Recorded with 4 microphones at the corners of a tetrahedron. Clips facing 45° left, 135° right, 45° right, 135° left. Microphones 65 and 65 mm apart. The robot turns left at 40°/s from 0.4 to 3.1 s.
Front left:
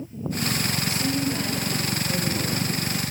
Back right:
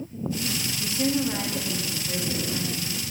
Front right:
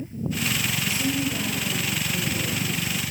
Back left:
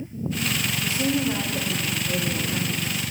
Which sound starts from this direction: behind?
A woman speaking, at 0.8 s.